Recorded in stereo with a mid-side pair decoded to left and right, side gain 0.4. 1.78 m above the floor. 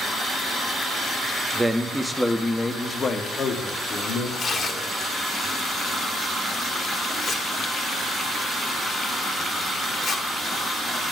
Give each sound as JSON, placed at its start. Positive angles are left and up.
{"t": 1.5, "sound": "a man speaking", "azimuth_deg": -20, "distance_m": 0.8}
{"t": 4.4, "sound": "tearing paper", "azimuth_deg": 55, "distance_m": 1.1}